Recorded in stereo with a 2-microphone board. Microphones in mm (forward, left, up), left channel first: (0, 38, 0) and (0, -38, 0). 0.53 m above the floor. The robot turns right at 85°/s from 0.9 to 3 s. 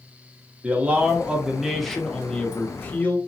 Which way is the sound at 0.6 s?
20° right (ahead or behind).